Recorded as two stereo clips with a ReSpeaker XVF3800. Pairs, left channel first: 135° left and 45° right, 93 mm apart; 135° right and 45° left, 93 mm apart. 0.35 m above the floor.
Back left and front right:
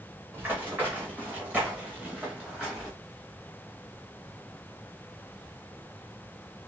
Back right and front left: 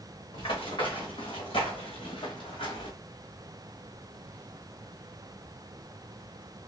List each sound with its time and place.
0.3 s running footsteps: 110° right, 3.5 m; by 2.9 s 130° right, 1.9 m